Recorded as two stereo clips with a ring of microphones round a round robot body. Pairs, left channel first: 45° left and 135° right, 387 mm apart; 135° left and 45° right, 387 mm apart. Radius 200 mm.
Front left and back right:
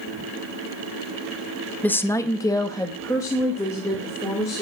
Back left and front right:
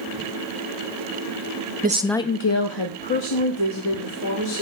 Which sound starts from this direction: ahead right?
A woman speaking, at 1.8 s.